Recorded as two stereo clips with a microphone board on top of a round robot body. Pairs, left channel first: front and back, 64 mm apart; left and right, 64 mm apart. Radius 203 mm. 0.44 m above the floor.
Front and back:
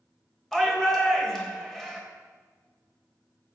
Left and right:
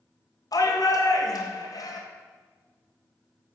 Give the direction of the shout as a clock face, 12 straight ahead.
9 o'clock.